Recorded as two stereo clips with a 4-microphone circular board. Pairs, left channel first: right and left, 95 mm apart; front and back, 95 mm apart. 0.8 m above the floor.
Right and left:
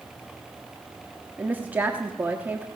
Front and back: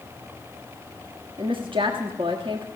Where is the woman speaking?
160° left, 1.4 m.